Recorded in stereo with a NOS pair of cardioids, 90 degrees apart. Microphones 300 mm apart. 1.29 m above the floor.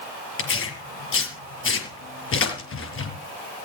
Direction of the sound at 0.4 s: 50° left.